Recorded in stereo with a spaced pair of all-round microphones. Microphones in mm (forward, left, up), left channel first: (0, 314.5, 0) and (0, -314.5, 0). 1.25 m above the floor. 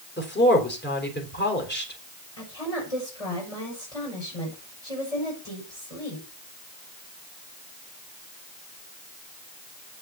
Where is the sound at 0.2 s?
15° left (ahead or behind), 3.5 m.